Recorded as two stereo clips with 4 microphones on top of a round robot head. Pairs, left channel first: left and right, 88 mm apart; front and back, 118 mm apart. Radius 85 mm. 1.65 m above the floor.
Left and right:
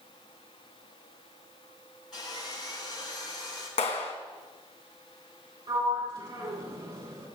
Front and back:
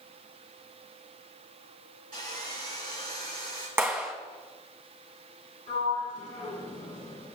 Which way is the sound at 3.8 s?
110° left.